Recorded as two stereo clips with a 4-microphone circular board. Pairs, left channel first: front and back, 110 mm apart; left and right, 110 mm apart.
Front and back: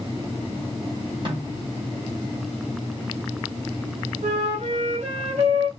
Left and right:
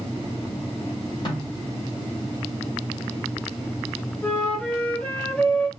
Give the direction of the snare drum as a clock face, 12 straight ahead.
7 o'clock.